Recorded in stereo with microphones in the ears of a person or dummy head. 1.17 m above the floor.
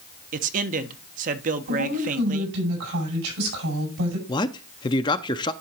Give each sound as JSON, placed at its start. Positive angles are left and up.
{"t": 0.3, "sound": "a man speaking", "side_deg": -40, "distance_m": 0.9}
{"t": 1.7, "sound": "a woman speaking", "side_deg": -80, "distance_m": 7.5}
{"t": 4.3, "sound": "a man speaking", "side_deg": 25, "distance_m": 0.5}